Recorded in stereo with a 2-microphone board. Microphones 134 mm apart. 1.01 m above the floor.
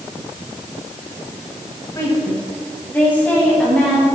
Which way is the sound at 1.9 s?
25° left (ahead or behind).